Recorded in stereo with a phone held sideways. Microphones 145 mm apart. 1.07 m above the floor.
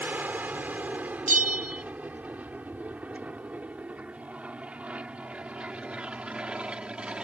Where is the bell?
70° right (ahead or behind).